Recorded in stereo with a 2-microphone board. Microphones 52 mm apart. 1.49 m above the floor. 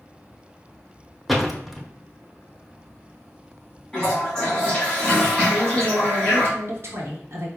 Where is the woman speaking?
50° right (ahead or behind), 1.1 m.